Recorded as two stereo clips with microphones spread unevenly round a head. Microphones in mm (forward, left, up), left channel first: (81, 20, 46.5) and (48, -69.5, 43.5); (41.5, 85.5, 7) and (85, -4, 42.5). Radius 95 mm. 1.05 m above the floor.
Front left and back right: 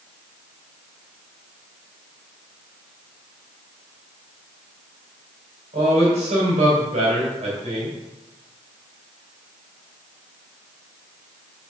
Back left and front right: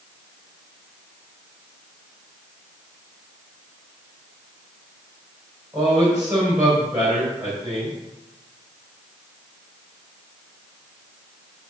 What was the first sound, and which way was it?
A man speaking, 140° right.